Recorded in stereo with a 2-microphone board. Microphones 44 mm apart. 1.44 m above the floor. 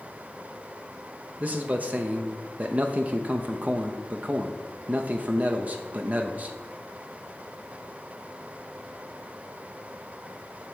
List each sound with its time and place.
1.4 s a man speaking: 35° right (ahead or behind), 0.5 m